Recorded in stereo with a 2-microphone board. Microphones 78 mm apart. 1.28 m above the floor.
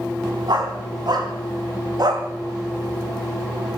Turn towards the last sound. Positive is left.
turn(degrees=-60)  # may be behind; listen again after turning